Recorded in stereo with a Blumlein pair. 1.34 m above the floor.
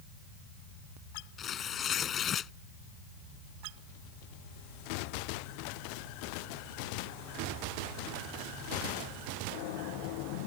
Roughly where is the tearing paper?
Ahead left.